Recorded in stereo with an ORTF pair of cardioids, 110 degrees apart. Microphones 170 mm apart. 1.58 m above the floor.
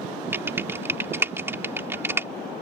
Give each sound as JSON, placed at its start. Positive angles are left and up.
{"t": 0.3, "sound": "typing on a keyboard", "azimuth_deg": -15}